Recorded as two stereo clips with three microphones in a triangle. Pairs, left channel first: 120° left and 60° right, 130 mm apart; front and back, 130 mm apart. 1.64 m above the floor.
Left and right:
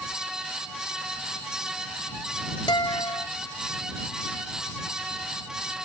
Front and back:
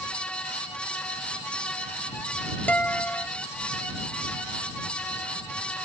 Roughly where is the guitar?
Left.